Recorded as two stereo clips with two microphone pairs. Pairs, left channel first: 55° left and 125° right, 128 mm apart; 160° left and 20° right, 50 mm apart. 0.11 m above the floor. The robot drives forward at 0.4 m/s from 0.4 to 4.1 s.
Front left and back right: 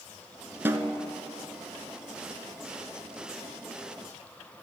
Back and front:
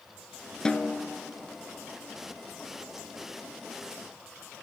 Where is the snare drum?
155° right, 0.5 m; by 1.0 s 165° right, 0.6 m.